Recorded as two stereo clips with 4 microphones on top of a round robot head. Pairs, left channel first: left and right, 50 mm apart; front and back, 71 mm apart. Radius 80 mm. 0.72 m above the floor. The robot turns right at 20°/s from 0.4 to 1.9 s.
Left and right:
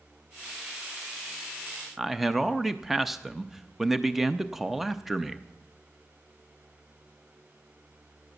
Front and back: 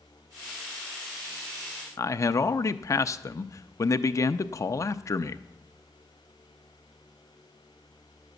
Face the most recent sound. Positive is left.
turn(degrees=-5)